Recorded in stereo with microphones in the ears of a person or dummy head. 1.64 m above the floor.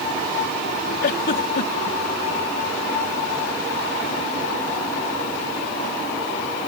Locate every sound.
1.0 s a giggle: 55° left (ahead or behind)